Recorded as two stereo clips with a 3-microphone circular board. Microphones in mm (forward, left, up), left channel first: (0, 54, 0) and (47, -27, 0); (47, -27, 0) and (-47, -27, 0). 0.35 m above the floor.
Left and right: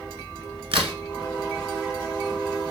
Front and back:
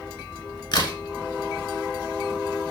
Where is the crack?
40° right, 0.7 m.